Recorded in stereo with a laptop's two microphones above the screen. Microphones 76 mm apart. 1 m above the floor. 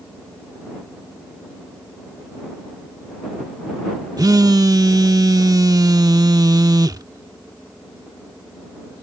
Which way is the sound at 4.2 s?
55° right (ahead or behind).